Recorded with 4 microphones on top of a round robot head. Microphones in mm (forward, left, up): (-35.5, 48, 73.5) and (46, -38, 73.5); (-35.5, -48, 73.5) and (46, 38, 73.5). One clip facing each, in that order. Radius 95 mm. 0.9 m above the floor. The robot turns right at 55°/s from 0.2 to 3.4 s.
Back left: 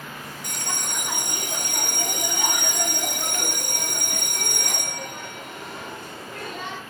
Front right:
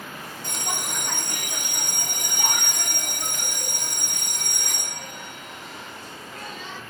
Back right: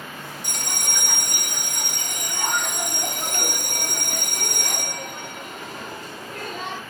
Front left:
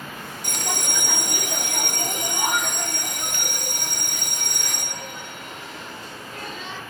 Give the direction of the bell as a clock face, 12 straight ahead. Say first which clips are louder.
Front right 2 dB, front left 6 dB; 12 o'clock.